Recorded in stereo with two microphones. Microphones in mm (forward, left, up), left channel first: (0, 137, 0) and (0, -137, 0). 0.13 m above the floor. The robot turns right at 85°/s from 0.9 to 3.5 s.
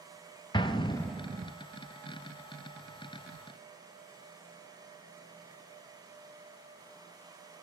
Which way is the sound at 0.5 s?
15° left (ahead or behind).